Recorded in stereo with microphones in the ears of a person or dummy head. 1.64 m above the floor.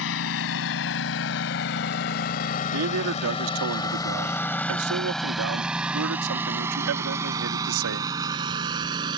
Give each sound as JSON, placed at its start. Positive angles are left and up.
{"t": 0.0, "sound": "a lawn mower", "side_deg": 65}
{"t": 2.7, "sound": "a man speaking", "side_deg": -75}